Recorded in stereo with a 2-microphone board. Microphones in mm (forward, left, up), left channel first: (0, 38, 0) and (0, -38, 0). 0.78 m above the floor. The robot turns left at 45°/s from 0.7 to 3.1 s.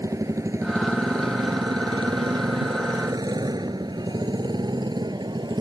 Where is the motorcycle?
50° right (ahead or behind); by 5.6 s 85° right.